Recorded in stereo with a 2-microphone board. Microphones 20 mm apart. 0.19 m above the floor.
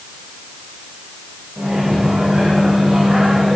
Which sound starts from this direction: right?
A microwave, at 1.6 s.